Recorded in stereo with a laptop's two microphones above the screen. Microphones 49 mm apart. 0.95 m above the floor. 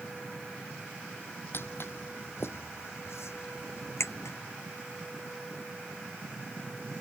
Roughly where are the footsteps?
Left.